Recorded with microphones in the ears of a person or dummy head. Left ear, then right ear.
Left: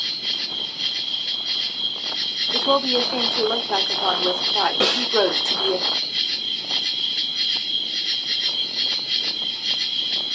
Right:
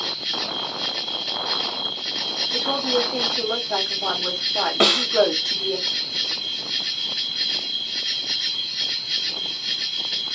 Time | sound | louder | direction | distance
0.0 | an insect | left 1 dB | 10° left (ahead or behind) | 2 m
2.5 | a woman speaking | left 4 dB | 30° left (ahead or behind) | 0.7 m
4.8 | a snare drum | right 2 dB | 25° right (ahead or behind) | 1.8 m